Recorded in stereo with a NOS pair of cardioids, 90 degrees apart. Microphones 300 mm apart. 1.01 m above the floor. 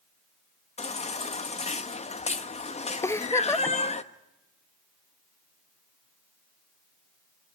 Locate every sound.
0.8 s a baby crying: 20° left, 1.1 m
3.0 s a giggle: 10° left, 0.6 m